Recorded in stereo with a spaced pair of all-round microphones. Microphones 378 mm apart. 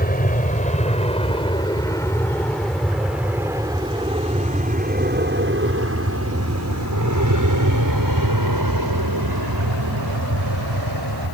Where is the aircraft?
20° left (ahead or behind); by 11.3 s 75° right (ahead or behind).